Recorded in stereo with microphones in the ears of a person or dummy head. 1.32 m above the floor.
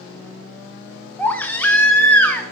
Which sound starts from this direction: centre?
A baby crying, at 1.2 s.